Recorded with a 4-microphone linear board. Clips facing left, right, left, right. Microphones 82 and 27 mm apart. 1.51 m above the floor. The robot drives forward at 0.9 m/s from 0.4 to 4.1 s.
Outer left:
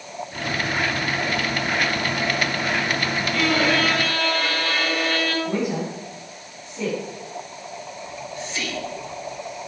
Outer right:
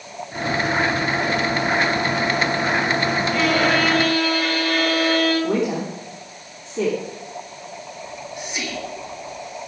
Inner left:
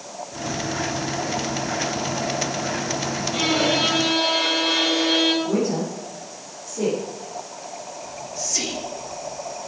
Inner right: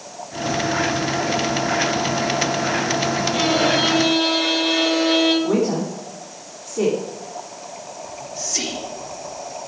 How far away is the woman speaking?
About 3 m.